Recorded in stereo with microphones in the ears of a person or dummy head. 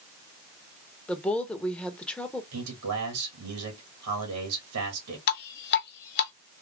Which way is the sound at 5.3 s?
55° left (ahead or behind).